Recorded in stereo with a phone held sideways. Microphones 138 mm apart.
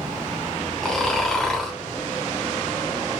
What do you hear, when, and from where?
0.8 s snoring: 5° left (ahead or behind), 0.8 m